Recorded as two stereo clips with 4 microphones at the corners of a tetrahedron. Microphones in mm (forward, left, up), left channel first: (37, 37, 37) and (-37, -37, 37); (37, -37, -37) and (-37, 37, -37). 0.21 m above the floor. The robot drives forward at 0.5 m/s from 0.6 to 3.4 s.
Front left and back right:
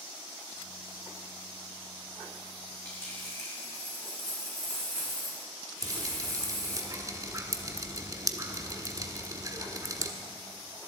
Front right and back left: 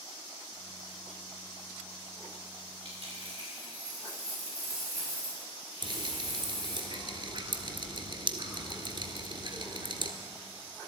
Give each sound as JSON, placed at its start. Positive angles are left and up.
{"t": 2.9, "sound": "a dropped coin", "azimuth_deg": 105, "distance_m": 5.5}
{"t": 5.8, "sound": "dripping", "azimuth_deg": 170, "distance_m": 1.4}